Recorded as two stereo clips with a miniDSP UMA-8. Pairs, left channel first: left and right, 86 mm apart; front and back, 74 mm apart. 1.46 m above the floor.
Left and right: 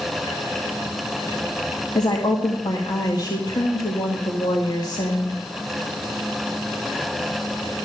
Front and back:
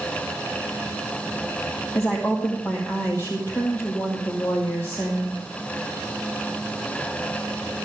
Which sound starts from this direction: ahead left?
A woman speaking, at 1.9 s.